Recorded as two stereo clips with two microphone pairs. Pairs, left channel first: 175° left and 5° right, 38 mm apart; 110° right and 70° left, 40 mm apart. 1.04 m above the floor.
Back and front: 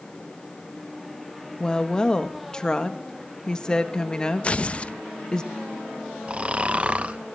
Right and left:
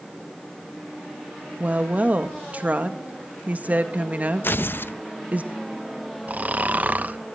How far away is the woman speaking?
About 1.7 m.